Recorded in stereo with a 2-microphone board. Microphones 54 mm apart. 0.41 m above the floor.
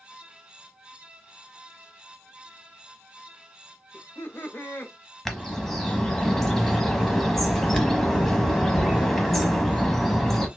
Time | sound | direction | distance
3.9 | laughter | 40° left (ahead or behind) | 1.0 m
5.2 | a bird | 5° left (ahead or behind) | 0.8 m